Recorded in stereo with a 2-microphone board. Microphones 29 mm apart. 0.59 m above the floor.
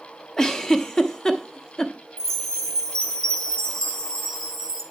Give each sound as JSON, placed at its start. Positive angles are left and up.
{"t": 0.4, "sound": "a giggle", "side_deg": 20, "distance_m": 0.9}
{"t": 2.2, "sound": "a chime", "side_deg": 30, "distance_m": 3.0}